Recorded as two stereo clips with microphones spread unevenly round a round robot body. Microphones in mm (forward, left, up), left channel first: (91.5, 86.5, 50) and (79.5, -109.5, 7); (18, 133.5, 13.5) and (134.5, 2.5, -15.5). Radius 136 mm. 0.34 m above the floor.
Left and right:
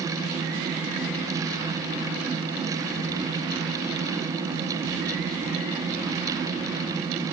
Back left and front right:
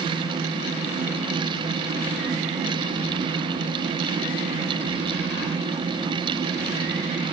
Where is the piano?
I don't hear a piano.